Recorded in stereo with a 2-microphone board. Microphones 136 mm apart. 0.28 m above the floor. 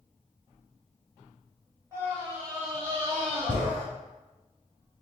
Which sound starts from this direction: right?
A scream, at 1.9 s.